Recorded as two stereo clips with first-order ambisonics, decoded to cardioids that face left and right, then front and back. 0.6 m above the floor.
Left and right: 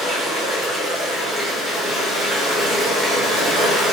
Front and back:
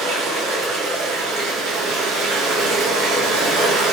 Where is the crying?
I don't hear crying.